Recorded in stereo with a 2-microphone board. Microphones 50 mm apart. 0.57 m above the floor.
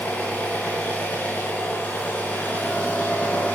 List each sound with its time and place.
0.0 s an engine running: 25° left (ahead or behind), 5 m